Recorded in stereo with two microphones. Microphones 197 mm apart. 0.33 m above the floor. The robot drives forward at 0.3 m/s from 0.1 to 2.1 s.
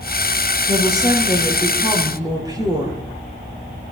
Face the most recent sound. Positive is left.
turn(degrees=-20)  # may be behind; listen again after turning